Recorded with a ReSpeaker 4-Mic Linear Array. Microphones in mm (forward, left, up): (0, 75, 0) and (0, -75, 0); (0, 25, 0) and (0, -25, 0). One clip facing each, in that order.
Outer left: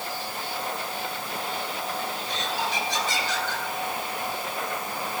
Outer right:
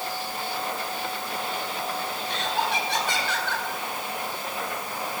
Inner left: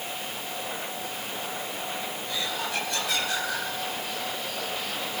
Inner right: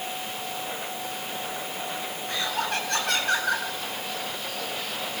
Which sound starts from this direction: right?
Laughter, at 2.3 s.